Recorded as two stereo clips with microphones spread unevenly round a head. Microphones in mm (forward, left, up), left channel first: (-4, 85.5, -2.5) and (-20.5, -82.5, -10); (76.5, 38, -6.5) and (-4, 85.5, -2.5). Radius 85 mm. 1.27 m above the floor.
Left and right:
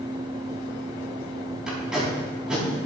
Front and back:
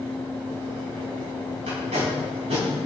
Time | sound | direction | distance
1.7 | tape being pulled | straight behind | 4.5 m